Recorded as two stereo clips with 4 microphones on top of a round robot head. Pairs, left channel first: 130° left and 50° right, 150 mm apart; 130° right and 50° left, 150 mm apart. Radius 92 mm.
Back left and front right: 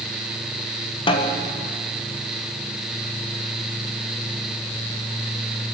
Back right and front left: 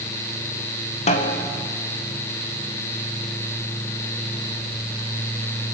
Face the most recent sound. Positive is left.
turn(degrees=-175)